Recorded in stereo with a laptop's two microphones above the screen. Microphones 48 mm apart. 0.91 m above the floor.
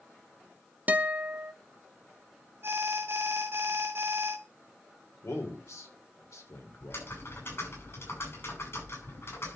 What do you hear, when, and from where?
0.9 s a guitar: 35° right (ahead or behind), 0.6 m
2.6 s an alarm: 55° right (ahead or behind), 1.1 m
5.2 s a man speaking: 80° left, 3 m
6.8 s typing on a keyboard: 55° left (ahead or behind), 6.5 m